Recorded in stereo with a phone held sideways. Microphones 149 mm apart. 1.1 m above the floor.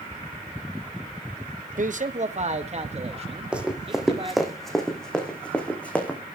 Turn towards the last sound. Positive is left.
turn(degrees=10)  # may be behind; listen again after turning